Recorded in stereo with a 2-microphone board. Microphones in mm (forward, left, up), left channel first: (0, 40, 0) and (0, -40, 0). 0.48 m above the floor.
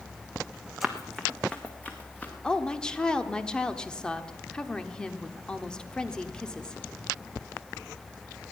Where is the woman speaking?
10° left (ahead or behind), 0.9 m.